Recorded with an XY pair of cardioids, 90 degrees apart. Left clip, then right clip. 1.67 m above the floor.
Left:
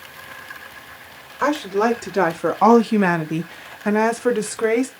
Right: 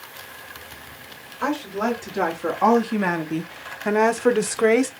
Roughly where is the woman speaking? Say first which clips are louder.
Left 5 dB; ahead left.